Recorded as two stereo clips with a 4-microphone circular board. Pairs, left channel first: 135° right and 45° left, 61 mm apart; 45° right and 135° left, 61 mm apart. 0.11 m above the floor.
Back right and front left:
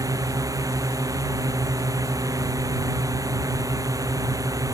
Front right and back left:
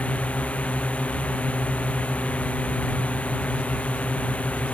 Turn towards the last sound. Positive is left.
turn(degrees=20)